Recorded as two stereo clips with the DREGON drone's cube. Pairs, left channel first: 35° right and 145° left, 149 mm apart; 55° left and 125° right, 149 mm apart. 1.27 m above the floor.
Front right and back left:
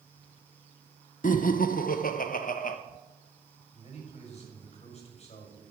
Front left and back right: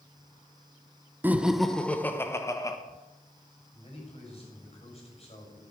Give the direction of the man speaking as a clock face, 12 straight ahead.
12 o'clock.